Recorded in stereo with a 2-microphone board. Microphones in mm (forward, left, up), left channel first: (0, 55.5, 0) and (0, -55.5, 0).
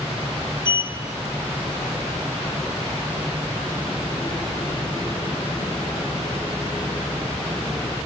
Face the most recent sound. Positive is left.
turn(degrees=35)  # may be behind; listen again after turning